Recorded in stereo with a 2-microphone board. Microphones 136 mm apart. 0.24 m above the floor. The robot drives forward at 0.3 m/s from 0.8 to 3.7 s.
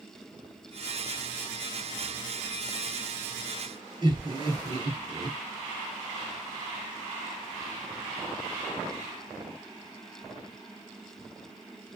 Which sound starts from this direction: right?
Laughter, at 4.0 s.